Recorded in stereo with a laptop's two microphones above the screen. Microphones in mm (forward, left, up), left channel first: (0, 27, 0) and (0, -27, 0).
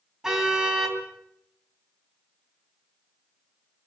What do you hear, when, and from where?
0.2 s a car horn: 10° right (ahead or behind), 3.5 m